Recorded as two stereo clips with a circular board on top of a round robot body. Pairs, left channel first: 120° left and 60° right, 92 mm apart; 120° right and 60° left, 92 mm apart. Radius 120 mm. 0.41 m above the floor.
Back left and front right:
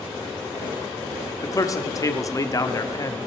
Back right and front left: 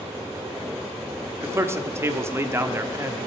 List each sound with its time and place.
1.4 s a man speaking: 105° left, 1.3 m